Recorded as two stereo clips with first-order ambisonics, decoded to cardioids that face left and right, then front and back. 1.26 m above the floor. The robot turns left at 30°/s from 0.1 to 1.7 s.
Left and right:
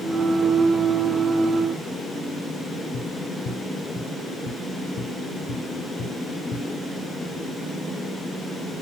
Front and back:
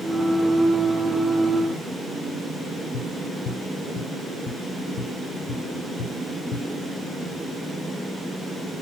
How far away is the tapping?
About 1.5 m.